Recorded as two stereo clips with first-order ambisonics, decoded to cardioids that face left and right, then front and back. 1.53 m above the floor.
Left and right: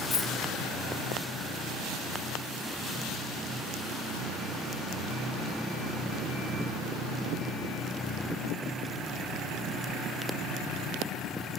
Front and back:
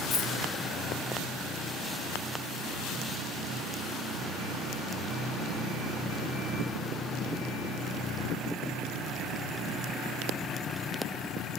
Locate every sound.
0.1 s a dropped coin: 60° left, 1.1 m